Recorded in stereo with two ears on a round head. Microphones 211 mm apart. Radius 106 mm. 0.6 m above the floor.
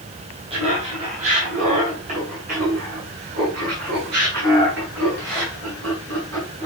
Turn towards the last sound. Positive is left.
turn(degrees=-55)  # may be behind; listen again after turning